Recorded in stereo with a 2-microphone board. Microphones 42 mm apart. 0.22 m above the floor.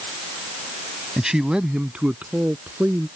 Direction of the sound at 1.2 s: 10° right (ahead or behind).